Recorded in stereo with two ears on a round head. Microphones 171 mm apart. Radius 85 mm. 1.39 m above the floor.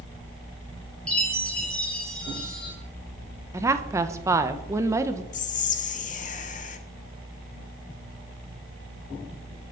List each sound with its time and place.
1.1 s a chime: 5° left (ahead or behind), 3 m
3.5 s a woman speaking: 15° right (ahead or behind), 0.8 m
5.3 s whispering: 40° left (ahead or behind), 1.2 m